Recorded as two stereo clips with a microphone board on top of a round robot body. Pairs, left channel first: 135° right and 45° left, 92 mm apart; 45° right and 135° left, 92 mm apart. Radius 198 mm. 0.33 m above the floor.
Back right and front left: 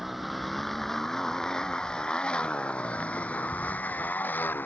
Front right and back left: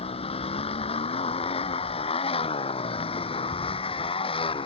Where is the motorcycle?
45° right; by 4.7 s 65° right.